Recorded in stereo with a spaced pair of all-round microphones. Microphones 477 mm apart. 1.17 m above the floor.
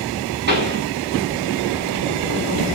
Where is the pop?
20° right (ahead or behind), 6 m.